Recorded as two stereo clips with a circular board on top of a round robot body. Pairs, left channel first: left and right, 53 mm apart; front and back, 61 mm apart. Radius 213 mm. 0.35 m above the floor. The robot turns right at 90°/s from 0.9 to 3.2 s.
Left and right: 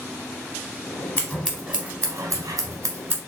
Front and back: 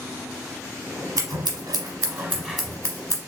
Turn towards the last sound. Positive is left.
turn(degrees=-30)